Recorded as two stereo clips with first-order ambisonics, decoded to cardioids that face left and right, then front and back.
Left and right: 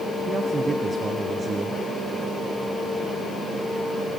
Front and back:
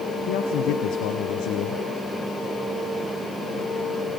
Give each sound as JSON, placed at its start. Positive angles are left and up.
{"t": 0.3, "sound": "a man speaking", "azimuth_deg": -20, "distance_m": 1.4}